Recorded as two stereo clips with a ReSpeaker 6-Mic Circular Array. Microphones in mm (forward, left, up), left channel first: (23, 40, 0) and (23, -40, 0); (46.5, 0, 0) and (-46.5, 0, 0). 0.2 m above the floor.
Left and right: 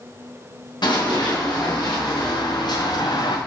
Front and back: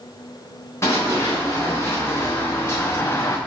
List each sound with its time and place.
0.8 s running footsteps: 60° left, 3.5 m